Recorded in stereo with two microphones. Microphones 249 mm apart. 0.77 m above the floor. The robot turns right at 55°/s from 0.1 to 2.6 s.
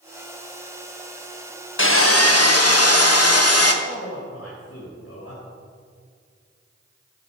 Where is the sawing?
55° left, 1.0 m; by 3.7 s 100° left, 1.0 m.